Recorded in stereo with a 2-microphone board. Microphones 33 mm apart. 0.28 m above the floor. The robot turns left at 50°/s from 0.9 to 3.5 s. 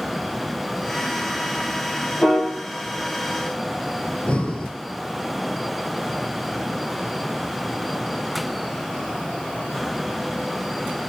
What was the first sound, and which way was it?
A piano, 45° left (ahead or behind).